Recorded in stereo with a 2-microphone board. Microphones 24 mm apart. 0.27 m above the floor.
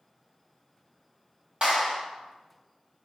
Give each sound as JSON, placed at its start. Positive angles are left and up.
{"t": 1.6, "sound": "a clap", "side_deg": -40, "distance_m": 1.2}